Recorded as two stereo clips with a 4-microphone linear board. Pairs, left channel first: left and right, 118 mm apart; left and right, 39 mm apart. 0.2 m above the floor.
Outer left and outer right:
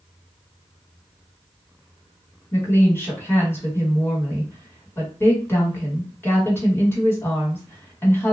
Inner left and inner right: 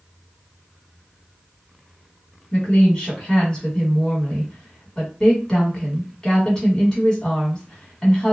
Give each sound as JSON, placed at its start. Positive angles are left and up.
{"t": 2.5, "sound": "a woman speaking", "side_deg": 20, "distance_m": 1.2}